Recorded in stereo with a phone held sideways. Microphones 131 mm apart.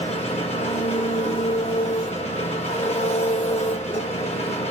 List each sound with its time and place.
0.0 s an engine running: 55° left (ahead or behind), 1.4 m